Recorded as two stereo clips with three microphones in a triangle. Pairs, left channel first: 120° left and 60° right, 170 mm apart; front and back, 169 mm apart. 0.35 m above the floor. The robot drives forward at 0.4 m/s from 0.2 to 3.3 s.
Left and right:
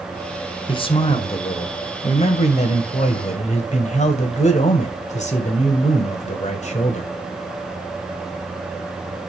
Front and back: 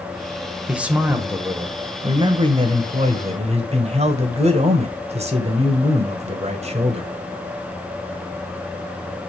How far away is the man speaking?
About 1.5 m.